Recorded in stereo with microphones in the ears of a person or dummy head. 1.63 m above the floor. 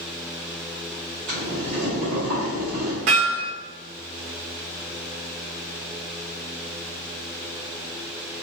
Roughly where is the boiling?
Right.